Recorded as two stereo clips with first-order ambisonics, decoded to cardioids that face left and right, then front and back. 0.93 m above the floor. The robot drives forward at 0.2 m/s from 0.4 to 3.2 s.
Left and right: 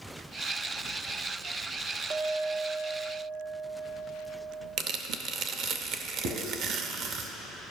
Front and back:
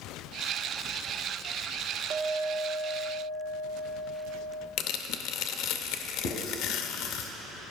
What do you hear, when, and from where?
2.1 s a clink: 145° right, 0.7 m; by 4.7 s 155° right, 0.9 m
4.8 s tearing paper: 40° right, 0.7 m
6.2 s writing: 50° right, 1.8 m